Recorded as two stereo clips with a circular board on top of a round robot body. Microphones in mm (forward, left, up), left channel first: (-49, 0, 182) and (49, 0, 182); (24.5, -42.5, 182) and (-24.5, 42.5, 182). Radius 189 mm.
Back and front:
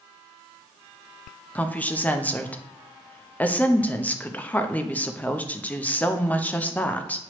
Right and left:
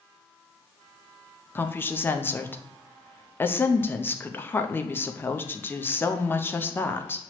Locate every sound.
1.6 s a woman speaking: 115° right, 0.8 m